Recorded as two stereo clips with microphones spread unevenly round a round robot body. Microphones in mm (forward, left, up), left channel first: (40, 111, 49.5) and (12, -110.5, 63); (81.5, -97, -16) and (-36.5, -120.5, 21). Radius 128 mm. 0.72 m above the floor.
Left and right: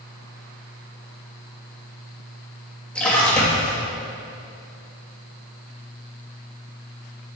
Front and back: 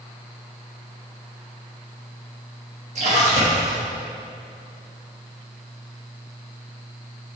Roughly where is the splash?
Behind.